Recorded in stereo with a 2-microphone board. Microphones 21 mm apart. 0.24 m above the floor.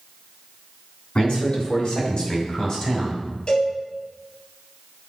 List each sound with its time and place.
1.1 s a man speaking: 50° left (ahead or behind), 2.5 m; by 3.2 s 10° left (ahead or behind), 1.8 m
3.5 s a cowbell: 45° left (ahead or behind), 3 m